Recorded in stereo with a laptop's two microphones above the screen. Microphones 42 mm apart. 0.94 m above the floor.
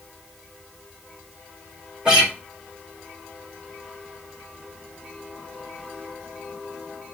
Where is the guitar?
20° right (ahead or behind), 1.9 m.